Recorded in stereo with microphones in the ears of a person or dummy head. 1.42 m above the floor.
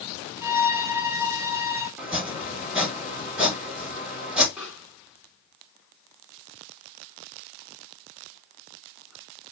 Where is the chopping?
10° right (ahead or behind), 3 m.